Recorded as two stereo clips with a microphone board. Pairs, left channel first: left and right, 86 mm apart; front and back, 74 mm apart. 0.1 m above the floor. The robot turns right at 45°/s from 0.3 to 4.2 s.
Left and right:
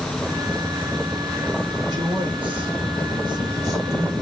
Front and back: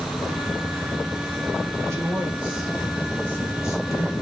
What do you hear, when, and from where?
1.9 s a man speaking: 135° right, 6 m; by 4.2 s 30° right, 6 m